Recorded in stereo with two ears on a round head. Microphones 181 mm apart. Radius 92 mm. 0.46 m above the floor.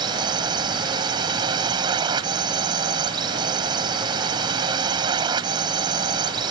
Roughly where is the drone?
Right.